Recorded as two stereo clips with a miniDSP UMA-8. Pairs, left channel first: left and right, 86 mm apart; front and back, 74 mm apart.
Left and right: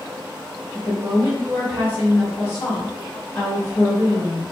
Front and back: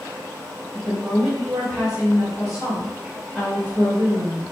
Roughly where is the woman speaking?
Right.